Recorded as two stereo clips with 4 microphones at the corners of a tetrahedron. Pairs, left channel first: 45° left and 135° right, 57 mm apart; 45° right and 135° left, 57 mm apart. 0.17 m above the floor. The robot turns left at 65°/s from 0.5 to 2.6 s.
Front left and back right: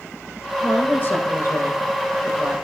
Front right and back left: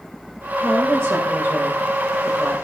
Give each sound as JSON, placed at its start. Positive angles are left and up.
{"t": 0.6, "sound": "a woman speaking", "azimuth_deg": 125, "distance_m": 8.0}